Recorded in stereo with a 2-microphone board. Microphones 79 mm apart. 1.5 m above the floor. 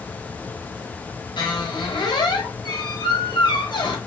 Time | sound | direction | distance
1.4 | a squeak | 75° left (ahead or behind) | 1.3 m